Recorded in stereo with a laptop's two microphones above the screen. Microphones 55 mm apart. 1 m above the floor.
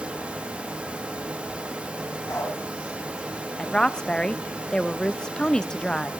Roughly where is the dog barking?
Left.